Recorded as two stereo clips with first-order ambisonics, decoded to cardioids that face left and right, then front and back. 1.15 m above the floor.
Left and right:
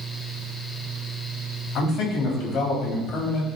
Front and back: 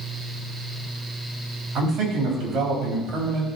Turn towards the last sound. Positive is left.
turn(degrees=135)